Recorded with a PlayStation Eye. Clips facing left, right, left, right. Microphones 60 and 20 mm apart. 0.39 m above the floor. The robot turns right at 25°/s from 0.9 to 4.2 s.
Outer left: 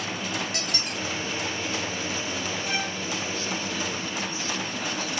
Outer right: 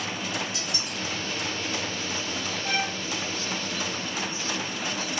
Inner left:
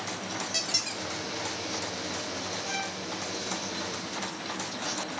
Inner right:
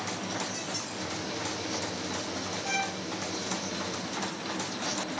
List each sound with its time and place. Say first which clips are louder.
0.5 s a squeak: outer left 2 dB, inner left 5 dB; 60° left (ahead or behind), 1.2 m; by 1.0 s 55° left (ahead or behind), 1.2 m
2.6 s a violin: outer right 4 dB, inner right 6 dB; 45° right (ahead or behind), 2 m